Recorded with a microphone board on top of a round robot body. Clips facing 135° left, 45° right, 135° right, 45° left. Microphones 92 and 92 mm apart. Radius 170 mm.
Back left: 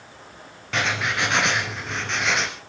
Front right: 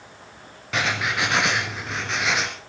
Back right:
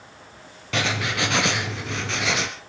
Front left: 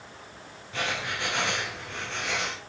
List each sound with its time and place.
0.7 s writing: 135° right, 2 m